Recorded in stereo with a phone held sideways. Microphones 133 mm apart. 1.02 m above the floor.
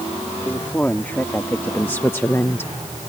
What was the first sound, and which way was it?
A woman speaking, 15° left (ahead or behind).